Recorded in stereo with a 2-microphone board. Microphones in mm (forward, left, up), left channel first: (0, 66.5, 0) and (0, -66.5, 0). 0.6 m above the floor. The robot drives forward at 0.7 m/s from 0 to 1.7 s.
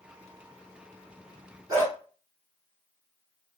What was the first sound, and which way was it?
A dog barking, 25° right (ahead or behind).